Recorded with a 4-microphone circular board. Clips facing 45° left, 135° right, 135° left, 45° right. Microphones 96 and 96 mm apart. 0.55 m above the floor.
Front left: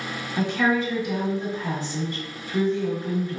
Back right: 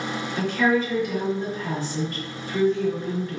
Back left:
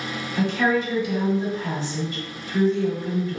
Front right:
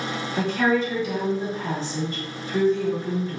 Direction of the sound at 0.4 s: 20° right.